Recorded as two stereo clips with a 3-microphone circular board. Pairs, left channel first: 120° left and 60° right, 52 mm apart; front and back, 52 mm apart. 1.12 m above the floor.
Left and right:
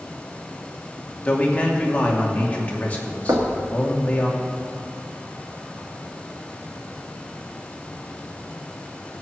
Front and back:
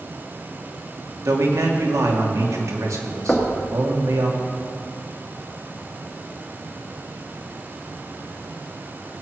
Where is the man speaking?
175° right, 2.5 m.